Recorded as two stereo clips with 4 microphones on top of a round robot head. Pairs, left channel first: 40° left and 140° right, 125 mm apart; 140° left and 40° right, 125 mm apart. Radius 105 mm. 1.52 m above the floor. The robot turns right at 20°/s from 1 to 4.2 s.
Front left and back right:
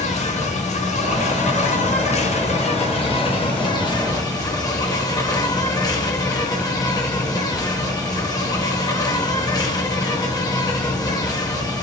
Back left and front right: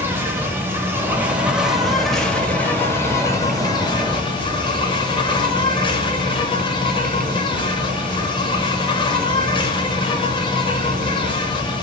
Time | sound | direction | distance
0.0 | an insect | 30° left | 2 m